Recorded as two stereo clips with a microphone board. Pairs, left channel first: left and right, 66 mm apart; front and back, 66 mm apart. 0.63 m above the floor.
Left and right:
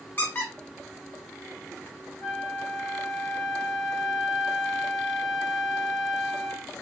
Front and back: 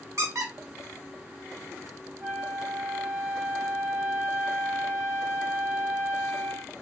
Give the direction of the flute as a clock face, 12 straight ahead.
8 o'clock.